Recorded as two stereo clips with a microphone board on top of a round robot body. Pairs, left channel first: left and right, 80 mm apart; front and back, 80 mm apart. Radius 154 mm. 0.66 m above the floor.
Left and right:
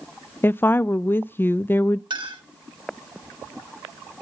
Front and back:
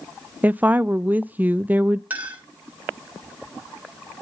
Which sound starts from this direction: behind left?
A woman speaking, at 0.4 s.